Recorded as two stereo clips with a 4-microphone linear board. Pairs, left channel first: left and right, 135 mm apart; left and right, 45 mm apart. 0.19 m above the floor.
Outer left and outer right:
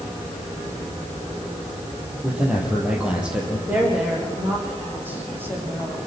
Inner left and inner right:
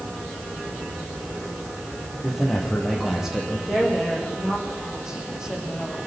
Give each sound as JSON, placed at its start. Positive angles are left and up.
{"t": 2.2, "sound": "a man speaking", "side_deg": -5, "distance_m": 7.0}
{"t": 3.7, "sound": "a woman speaking", "side_deg": -15, "distance_m": 9.0}